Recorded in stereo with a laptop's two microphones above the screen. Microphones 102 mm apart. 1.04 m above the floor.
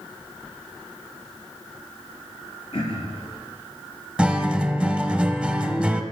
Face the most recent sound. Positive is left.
turn(degrees=-10)  # may be behind; listen again after turning